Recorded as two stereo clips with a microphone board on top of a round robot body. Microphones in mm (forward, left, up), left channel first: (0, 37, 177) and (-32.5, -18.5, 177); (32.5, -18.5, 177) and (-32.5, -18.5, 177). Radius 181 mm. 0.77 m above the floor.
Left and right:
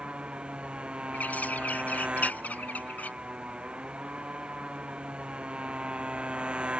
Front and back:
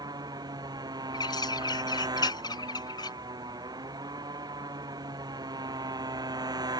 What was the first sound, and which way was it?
A motorcycle, 165° left.